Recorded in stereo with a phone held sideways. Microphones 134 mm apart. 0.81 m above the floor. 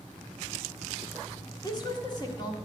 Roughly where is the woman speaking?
Left.